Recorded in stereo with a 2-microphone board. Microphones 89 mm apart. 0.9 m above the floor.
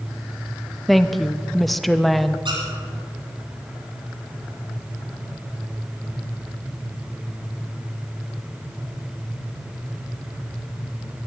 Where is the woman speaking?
Centre (ahead or behind), 0.7 m.